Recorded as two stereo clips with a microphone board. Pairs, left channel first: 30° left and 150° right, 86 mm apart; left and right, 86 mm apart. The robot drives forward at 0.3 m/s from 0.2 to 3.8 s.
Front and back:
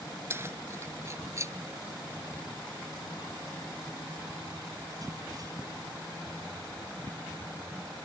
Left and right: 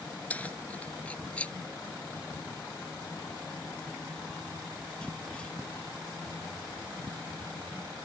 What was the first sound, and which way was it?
Keys jangling, 155° left.